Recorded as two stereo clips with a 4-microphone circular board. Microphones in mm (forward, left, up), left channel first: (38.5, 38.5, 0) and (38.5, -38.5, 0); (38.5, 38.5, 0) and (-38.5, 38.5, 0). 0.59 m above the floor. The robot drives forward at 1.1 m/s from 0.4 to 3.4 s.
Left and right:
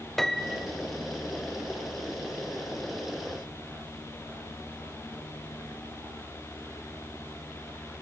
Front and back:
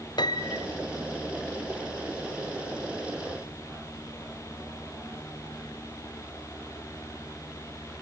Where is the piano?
5° left, 0.8 m.